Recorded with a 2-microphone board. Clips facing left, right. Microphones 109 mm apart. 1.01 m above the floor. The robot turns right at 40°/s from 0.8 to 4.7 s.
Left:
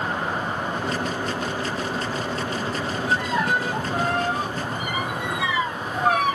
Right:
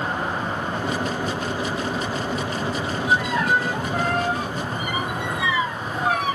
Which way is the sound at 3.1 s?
10° right.